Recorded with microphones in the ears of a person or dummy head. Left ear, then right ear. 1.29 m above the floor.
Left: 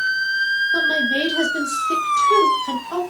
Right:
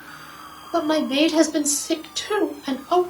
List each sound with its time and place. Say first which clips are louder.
0.7 s a woman speaking: left 2 dB; 85° right, 1.4 m